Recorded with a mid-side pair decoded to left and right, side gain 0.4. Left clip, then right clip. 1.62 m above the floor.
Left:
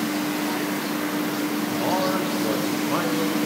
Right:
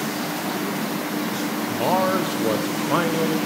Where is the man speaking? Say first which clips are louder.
Right 4 dB; 40° right, 0.9 m.